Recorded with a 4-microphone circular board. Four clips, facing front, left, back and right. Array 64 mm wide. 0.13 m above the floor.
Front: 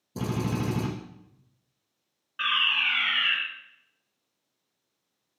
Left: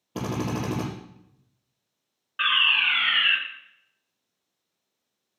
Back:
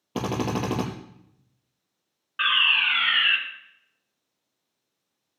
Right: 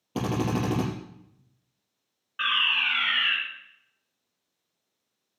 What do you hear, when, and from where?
0.1 s a drill: 170° right, 4 m
2.4 s a fire alarm: 145° left, 2 m